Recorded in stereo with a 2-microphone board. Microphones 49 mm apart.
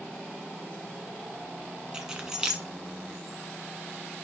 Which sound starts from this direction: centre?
Keys jangling, at 1.9 s.